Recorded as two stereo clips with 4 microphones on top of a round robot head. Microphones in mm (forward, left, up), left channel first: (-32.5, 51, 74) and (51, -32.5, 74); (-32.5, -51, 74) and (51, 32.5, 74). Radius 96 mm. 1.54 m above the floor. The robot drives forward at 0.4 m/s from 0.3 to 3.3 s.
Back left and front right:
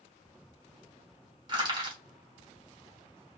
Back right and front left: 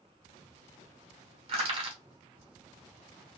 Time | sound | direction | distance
1.5 | crushing | straight ahead | 2.5 m